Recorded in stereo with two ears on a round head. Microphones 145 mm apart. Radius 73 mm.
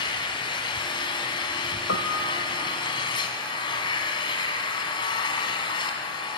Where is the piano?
85° left, 1.8 m.